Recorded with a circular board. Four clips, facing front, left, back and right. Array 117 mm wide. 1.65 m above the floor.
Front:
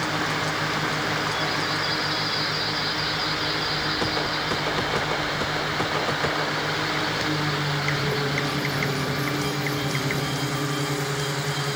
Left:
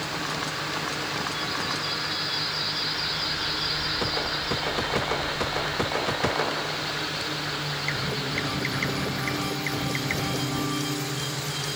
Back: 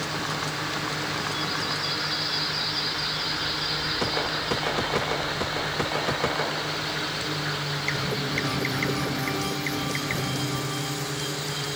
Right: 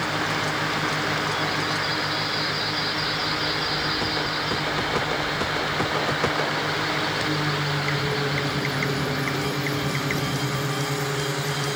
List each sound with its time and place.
Only background noise.